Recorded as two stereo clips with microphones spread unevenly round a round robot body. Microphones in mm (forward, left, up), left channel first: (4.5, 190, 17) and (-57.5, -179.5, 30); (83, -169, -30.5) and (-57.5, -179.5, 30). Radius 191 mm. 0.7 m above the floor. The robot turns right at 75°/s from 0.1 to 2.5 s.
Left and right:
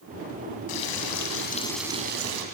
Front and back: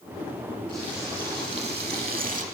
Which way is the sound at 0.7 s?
90° left.